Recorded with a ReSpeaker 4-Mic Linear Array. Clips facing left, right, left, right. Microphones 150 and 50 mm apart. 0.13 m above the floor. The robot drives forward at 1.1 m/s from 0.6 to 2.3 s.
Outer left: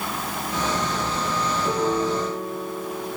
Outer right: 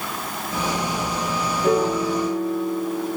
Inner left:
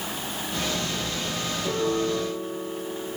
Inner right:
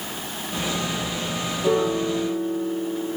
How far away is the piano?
About 6 m.